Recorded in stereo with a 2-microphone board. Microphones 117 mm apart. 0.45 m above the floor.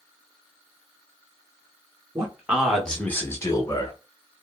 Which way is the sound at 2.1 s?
25° right (ahead or behind).